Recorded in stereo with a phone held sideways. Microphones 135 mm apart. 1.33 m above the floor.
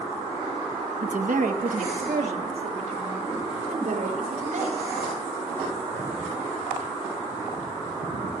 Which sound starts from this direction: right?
A woman speaking, at 1.0 s.